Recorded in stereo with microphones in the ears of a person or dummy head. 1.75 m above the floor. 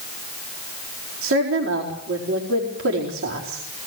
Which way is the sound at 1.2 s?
80° right.